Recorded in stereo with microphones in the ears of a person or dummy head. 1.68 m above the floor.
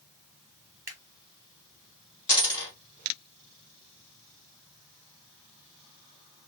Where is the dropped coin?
20° left (ahead or behind), 1.1 m.